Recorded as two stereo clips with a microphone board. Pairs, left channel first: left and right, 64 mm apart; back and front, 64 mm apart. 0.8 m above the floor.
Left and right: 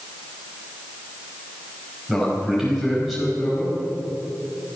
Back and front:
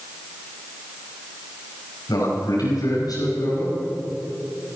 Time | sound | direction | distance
2.1 | a man speaking | straight behind | 5 m